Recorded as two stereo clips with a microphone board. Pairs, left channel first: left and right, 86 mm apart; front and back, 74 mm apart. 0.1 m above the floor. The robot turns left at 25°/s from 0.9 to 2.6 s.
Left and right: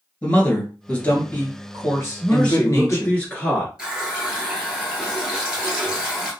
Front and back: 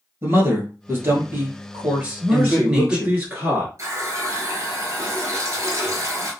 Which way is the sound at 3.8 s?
165° right.